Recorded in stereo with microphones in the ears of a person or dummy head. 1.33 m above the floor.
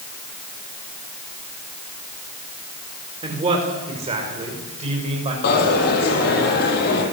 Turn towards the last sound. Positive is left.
turn(degrees=60)  # may be behind; listen again after turning